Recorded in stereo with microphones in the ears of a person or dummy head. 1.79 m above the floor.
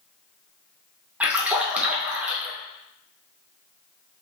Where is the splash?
5° right (ahead or behind), 0.6 m.